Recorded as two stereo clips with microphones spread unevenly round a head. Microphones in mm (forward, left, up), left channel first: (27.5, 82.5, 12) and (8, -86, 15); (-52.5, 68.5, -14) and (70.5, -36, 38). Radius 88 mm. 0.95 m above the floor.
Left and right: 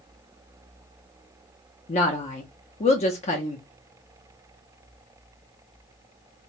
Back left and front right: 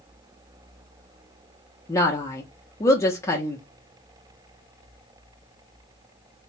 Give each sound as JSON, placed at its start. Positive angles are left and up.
{"t": 1.9, "sound": "a woman speaking", "azimuth_deg": 105, "distance_m": 0.5}